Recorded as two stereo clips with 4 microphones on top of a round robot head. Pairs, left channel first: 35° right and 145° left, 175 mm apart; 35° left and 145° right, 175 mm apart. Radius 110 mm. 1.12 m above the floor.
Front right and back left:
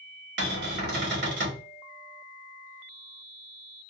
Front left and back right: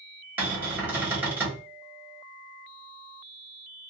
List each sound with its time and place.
0.4 s a cupboard door: 135° left, 1.2 m